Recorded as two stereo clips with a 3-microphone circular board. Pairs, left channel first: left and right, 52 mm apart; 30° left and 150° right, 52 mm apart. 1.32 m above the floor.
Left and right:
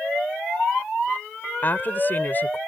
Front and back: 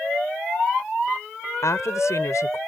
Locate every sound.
1.6 s a woman speaking: 40° left